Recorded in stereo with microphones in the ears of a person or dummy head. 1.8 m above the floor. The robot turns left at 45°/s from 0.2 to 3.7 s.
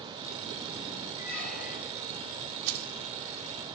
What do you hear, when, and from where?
1.2 s a squeak: 155° left, 10 m; by 2.1 s 115° left, 10 m
2.7 s keys jangling: 40° right (ahead or behind), 1.2 m; by 2.9 s 50° right (ahead or behind), 1.2 m